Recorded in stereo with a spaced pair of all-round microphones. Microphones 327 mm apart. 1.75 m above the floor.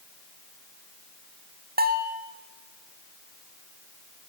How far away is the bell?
About 2.5 m.